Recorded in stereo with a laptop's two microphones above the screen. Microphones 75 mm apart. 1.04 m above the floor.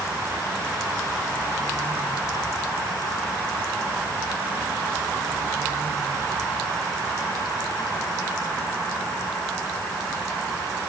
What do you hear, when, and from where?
Only background noise.